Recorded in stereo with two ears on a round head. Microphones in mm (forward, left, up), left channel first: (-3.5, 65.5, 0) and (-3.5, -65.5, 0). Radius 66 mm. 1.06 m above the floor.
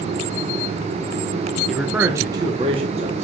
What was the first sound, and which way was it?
A man speaking, centre (ahead or behind).